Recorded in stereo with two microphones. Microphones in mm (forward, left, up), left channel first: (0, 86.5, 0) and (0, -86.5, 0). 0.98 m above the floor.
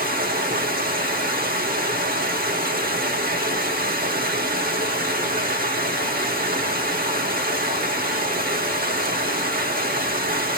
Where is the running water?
60° right (ahead or behind), 1.0 m.